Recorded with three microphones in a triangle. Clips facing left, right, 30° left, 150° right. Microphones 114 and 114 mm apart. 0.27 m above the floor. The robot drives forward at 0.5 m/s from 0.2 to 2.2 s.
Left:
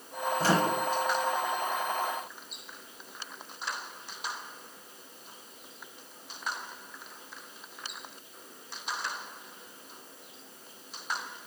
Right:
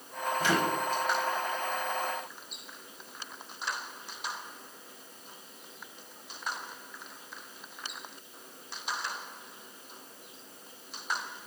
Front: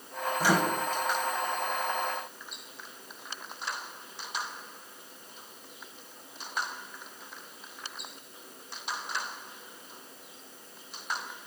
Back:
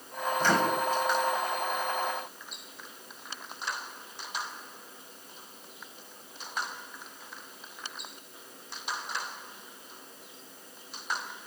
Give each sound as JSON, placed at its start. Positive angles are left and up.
{"t": 0.4, "sound": "a microwave", "azimuth_deg": 105, "distance_m": 0.9}